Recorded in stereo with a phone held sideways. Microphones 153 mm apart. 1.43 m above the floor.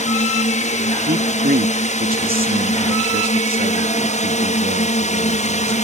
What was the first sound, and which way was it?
A drone, 50° left (ahead or behind).